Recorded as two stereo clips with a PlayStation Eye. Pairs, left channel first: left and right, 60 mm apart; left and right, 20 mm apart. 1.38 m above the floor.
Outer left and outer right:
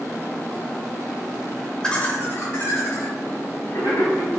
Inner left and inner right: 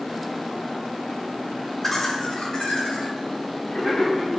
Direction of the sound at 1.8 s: 15° left (ahead or behind).